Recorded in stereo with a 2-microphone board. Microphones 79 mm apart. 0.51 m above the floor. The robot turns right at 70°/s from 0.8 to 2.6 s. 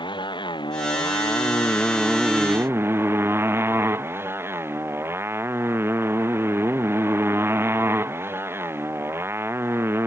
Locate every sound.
0.0 s a motorcycle: 85° left; by 10.1 s 150° right